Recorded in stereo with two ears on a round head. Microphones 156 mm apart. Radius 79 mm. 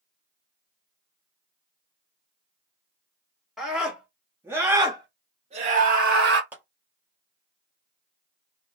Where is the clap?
10° right (ahead or behind), 2.0 m.